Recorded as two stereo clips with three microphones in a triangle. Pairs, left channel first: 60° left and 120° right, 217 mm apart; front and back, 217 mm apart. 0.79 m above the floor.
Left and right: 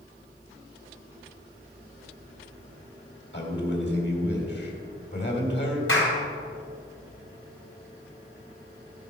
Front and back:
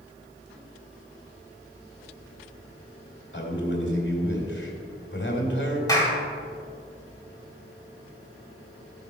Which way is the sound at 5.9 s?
75° left.